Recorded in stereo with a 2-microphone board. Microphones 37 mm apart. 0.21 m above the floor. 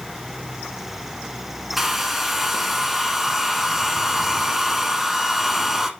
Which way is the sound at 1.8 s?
5° right (ahead or behind).